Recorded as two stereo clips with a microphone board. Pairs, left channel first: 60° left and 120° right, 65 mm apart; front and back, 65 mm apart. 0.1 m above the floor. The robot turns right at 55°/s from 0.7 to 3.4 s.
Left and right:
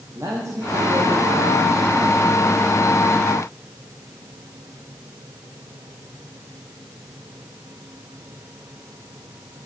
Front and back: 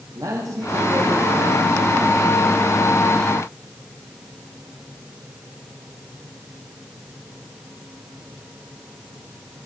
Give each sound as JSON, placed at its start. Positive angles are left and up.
{"t": 0.1, "sound": "a man speaking", "azimuth_deg": -160, "distance_m": 5.5}